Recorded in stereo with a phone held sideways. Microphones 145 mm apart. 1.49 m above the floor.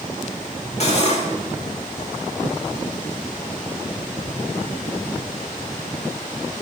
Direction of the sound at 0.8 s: 45° left (ahead or behind).